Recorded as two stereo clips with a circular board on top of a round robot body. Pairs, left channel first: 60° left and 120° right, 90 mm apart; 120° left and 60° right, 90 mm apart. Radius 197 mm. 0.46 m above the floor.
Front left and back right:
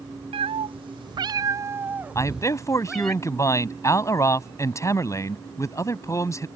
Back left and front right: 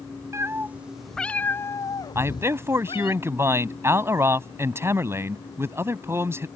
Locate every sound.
0.3 s a cat meowing: 120° right; by 3.1 s 145° left
2.1 s a man speaking: 5° left